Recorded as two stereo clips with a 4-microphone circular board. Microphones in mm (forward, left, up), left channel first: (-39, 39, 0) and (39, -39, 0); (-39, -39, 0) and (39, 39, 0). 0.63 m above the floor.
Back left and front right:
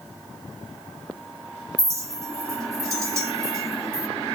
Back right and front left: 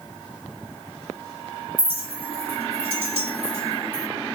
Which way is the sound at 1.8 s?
15° left.